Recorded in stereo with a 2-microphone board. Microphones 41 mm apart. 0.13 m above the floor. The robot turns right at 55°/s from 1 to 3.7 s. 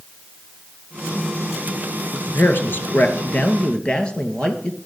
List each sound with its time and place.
2.1 s a man speaking: 65° left, 2 m; by 4.8 s 150° left, 2 m